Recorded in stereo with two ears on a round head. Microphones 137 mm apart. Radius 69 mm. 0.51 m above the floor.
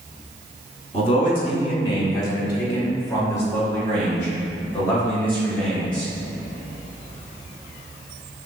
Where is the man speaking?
35° left (ahead or behind), 1.2 m; by 6.1 s 10° left (ahead or behind), 3 m.